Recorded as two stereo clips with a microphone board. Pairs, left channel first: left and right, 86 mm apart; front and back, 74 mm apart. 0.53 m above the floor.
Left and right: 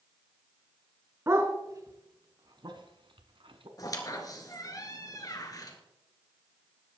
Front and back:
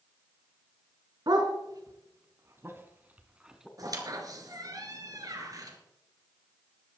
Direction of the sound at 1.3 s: 150° right.